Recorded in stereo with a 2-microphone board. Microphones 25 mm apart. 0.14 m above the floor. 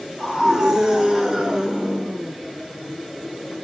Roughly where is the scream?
Centre.